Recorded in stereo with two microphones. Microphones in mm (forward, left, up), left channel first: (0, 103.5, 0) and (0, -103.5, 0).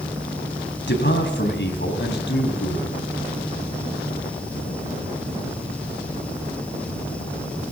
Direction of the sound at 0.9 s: 60° left (ahead or behind).